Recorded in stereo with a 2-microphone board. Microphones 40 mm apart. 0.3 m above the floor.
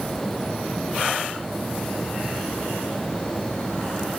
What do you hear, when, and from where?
Only background noise.